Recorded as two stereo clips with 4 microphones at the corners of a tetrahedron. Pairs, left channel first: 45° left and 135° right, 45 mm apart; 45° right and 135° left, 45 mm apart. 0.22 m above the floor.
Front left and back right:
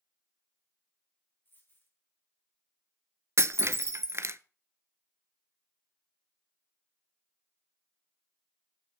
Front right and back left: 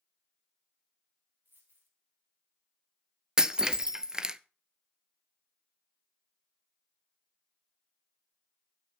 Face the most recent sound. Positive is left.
turn(degrees=-150)